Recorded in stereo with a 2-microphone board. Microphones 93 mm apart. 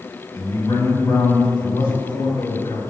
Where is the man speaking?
35° left (ahead or behind), 1.6 m; by 2.8 s 60° left (ahead or behind), 3 m.